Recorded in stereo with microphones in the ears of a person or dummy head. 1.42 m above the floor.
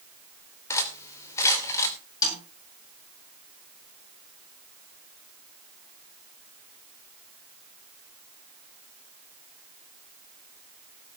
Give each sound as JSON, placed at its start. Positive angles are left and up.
{"t": 0.7, "sound": "cutlery clinking", "side_deg": 20, "distance_m": 3.0}
{"t": 2.2, "sound": "a snare drum", "side_deg": 25, "distance_m": 8.5}